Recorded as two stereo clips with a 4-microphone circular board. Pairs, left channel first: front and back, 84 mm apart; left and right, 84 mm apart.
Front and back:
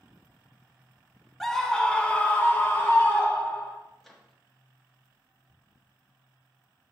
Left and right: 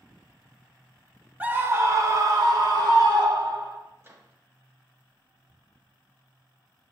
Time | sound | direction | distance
1.4 | a scream | 80° right | 0.7 m
4.0 | a microwave | 85° right | 0.9 m
5.5 | ticking | 140° right | 1.6 m